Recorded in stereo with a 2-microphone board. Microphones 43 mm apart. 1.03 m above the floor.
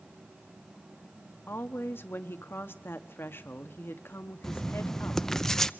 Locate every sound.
1.5 s a woman speaking: 65° left (ahead or behind), 1.3 m
4.4 s writing: 10° left (ahead or behind), 0.6 m